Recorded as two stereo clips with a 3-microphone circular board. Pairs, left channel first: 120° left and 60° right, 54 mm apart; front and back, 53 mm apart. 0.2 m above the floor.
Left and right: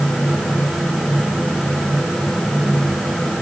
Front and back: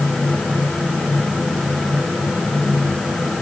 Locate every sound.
Only background noise.